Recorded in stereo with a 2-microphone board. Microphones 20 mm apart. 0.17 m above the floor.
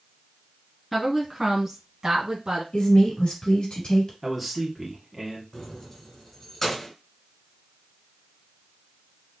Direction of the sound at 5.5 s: 25° left (ahead or behind).